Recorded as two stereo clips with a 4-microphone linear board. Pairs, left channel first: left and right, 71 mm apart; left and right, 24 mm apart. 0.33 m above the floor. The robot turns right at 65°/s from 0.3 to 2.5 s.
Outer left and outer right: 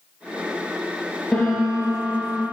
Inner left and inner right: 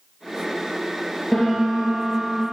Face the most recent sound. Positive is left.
turn(degrees=-115)